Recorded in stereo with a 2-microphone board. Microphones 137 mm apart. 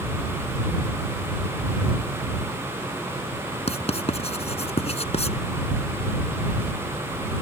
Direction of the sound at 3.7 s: 50° left (ahead or behind).